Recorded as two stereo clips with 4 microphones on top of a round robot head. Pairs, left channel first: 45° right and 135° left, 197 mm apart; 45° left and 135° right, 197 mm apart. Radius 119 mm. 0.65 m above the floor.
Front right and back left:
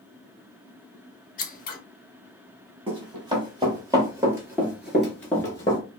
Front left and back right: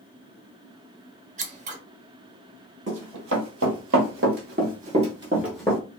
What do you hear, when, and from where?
1.4 s scissors: 85° right, 0.7 m
2.9 s running footsteps: 160° right, 1.4 m; by 5.8 s 20° right, 0.6 m